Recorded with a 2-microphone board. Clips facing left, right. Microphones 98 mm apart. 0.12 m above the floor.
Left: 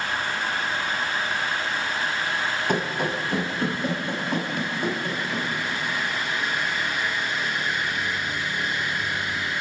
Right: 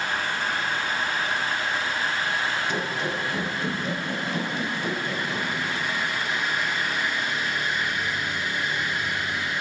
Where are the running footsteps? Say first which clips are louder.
Left 3 dB; 50° left (ahead or behind), 1.4 m; by 5.5 s 55° left (ahead or behind), 3.5 m.